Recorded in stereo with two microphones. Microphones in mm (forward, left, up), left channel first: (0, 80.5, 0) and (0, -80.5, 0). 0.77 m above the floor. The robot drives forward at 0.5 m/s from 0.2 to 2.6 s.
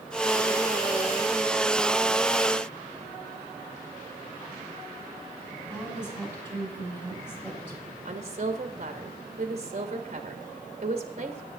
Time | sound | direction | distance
5.7 | a woman speaking | 15° left (ahead or behind) | 5 m
8.1 | a woman speaking | 45° right (ahead or behind) | 1.3 m